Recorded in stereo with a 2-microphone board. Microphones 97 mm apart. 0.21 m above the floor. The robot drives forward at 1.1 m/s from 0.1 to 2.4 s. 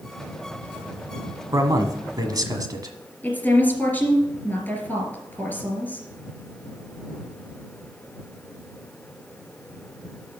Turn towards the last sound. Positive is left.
turn(degrees=20)  # may be behind; listen again after turning